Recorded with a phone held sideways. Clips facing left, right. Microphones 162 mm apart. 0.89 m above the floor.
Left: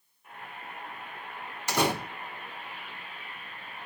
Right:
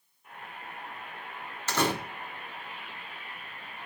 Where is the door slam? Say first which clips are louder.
Left 1 dB; 10° left (ahead or behind), 1.0 m.